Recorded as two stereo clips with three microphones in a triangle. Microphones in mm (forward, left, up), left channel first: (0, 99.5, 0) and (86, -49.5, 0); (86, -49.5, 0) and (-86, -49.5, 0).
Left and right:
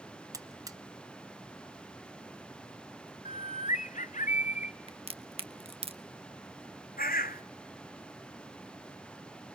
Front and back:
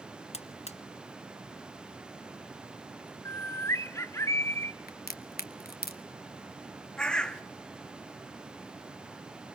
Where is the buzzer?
Straight ahead, 0.8 m.